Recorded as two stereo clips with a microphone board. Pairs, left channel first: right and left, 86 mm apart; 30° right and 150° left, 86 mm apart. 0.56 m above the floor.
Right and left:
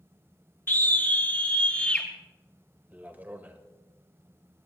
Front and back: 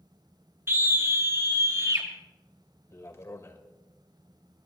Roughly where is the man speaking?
Ahead.